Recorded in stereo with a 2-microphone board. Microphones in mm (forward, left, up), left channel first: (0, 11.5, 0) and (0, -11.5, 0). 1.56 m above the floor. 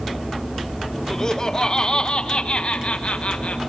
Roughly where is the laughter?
Left.